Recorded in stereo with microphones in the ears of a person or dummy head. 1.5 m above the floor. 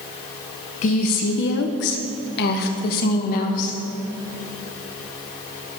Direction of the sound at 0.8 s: 35° left (ahead or behind).